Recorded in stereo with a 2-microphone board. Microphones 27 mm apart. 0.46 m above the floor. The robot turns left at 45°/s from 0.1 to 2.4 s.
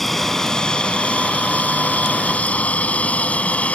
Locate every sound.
0.0 s an aircraft: 5° left (ahead or behind); by 3.8 s 60° left (ahead or behind)